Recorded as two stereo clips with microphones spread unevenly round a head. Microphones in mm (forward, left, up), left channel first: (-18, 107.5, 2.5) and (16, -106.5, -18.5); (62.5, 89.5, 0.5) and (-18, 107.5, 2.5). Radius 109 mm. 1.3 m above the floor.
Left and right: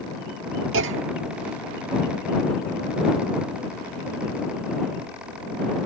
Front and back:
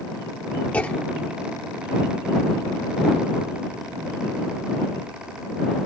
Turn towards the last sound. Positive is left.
turn(degrees=-85)